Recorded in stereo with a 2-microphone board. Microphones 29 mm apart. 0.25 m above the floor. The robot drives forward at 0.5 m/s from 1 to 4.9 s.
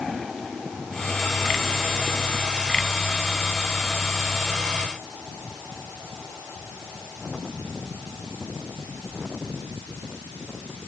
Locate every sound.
Only background noise.